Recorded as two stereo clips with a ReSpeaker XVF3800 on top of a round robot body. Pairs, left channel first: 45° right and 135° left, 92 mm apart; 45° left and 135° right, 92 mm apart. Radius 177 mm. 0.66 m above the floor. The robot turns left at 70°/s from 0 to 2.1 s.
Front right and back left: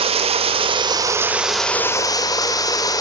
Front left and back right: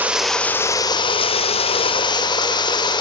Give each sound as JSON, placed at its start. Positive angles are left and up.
{"t": 0.0, "sound": "running water", "azimuth_deg": 155, "distance_m": 1.3}